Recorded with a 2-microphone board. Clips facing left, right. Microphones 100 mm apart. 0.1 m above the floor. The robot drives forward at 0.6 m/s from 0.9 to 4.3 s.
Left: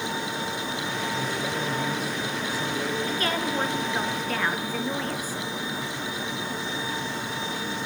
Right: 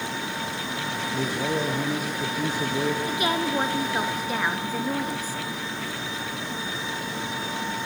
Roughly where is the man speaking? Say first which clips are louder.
Right 3 dB; right.